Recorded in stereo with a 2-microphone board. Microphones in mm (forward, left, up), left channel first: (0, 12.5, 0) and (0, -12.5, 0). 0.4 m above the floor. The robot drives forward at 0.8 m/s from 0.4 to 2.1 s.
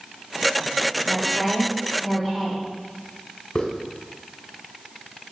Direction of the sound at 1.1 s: 5° right (ahead or behind).